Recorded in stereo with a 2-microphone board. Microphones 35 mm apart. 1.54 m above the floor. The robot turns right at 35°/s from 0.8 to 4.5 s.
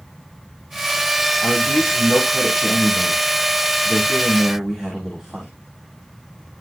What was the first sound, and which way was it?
A man speaking, 75° left.